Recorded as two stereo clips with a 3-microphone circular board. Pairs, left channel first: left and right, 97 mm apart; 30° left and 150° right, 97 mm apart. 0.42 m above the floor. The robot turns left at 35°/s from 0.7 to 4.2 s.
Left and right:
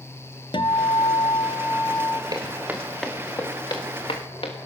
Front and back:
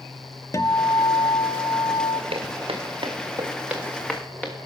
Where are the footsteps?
140° right, 2.0 m; by 4.5 s 100° left, 3 m.